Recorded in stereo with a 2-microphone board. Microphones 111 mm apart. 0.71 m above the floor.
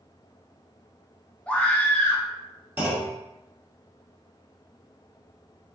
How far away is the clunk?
About 1.0 m.